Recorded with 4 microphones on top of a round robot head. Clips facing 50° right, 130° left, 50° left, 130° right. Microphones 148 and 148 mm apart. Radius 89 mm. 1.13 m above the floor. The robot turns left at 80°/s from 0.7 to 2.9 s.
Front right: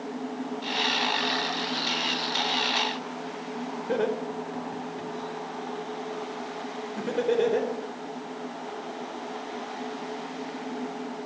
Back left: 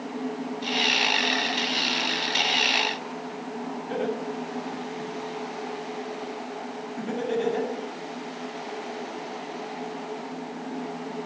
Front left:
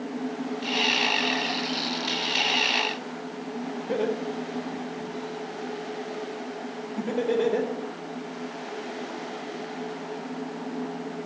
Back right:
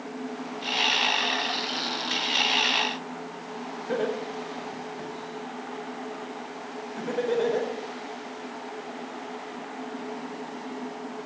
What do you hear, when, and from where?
3.9 s laughter: 20° right, 4 m